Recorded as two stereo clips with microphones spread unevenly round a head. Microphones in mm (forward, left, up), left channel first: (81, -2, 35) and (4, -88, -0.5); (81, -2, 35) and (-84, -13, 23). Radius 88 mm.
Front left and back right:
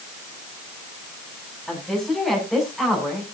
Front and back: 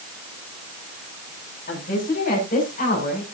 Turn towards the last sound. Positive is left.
turn(degrees=-40)